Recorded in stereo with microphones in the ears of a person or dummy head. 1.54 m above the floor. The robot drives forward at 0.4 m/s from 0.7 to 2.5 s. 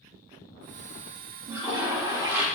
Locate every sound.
1.5 s a toilet flushing: 10° right (ahead or behind), 1.3 m